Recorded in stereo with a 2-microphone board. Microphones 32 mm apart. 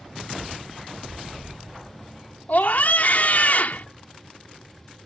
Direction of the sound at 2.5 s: 55° left (ahead or behind).